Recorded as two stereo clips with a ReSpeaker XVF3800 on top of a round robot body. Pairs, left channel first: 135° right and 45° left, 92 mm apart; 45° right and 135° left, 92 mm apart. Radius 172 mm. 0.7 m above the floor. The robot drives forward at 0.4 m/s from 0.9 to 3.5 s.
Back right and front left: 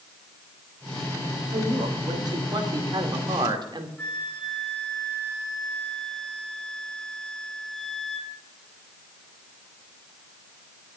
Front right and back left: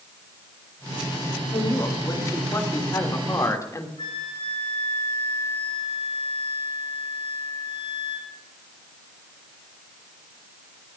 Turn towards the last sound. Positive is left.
turn(degrees=-55)